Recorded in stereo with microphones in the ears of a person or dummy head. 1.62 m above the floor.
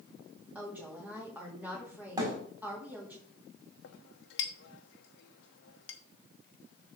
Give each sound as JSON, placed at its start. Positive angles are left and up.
{"t": 0.6, "sound": "a woman speaking", "side_deg": -5, "distance_m": 3.5}
{"t": 2.2, "sound": "a thud", "side_deg": -15, "distance_m": 4.0}
{"t": 3.8, "sound": "a clink", "side_deg": 65, "distance_m": 1.0}